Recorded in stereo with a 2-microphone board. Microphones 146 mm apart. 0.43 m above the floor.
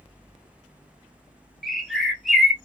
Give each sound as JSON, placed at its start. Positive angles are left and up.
{"t": 1.6, "sound": "a bird", "side_deg": 0, "distance_m": 1.3}